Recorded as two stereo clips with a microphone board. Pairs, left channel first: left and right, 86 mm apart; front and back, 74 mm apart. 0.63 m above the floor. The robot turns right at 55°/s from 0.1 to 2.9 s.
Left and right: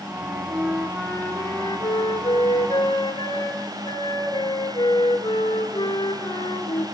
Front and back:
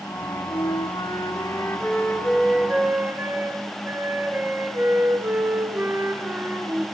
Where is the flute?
30° right, 4.5 m; by 6.8 s 120° left, 4.5 m.